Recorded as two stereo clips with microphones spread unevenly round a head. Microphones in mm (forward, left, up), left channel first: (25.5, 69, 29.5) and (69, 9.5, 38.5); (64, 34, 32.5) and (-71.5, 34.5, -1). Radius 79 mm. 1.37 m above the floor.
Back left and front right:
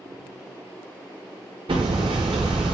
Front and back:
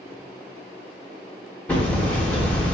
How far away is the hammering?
About 0.7 m.